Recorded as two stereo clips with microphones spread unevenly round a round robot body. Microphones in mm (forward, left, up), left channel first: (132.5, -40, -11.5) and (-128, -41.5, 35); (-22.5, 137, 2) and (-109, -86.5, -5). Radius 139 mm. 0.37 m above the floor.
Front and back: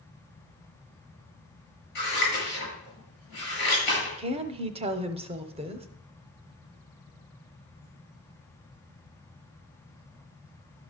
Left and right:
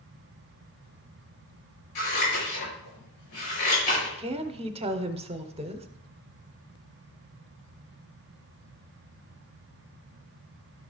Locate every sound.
1.9 s scissors: 55° left, 7 m
4.2 s a woman speaking: 120° right, 0.8 m